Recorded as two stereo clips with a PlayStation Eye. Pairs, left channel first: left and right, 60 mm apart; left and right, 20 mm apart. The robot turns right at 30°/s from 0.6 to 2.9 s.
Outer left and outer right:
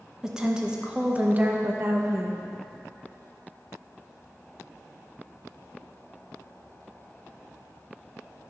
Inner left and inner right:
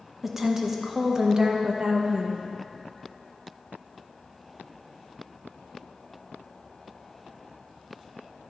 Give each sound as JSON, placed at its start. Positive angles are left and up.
{"t": 0.2, "sound": "a woman speaking", "azimuth_deg": -165, "distance_m": 0.8}